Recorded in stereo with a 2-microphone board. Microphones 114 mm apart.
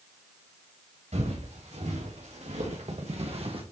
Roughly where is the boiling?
I don't hear boiling.